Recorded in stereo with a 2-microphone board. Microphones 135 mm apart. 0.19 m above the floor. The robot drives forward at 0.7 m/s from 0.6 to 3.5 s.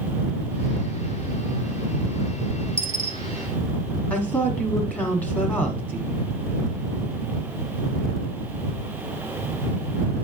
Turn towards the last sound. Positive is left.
turn(degrees=10)  # may be behind; listen again after turning